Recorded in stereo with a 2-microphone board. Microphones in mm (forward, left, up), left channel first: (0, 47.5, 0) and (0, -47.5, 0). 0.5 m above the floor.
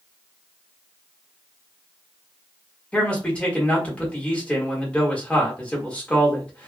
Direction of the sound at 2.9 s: 10° left (ahead or behind).